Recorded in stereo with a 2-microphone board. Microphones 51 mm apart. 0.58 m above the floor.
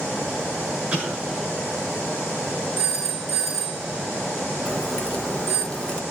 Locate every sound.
0.9 s an explosion: 20° right (ahead or behind), 7 m
2.8 s a phone ringing: 5° left (ahead or behind), 4.5 m
4.7 s a crack: 25° left (ahead or behind), 1.7 m